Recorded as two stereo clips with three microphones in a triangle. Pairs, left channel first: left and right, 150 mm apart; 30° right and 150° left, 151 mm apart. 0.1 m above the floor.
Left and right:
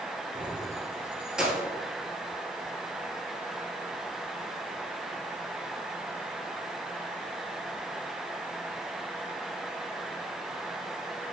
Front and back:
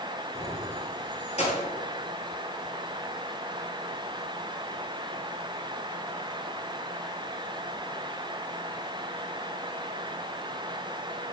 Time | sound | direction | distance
0.3 | keys jangling | 45° right | 1.3 m